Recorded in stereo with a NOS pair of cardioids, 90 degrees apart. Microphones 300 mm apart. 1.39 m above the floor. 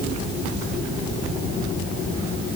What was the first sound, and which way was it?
Only background noise.